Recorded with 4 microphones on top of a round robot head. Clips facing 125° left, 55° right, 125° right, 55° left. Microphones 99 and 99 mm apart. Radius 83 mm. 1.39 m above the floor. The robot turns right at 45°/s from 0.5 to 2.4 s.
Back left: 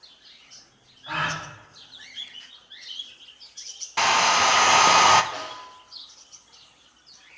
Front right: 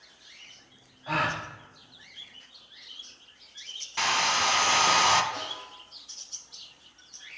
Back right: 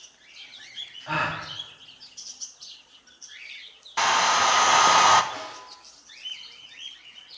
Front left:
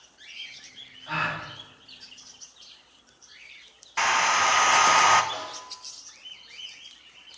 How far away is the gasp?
About 1.0 m.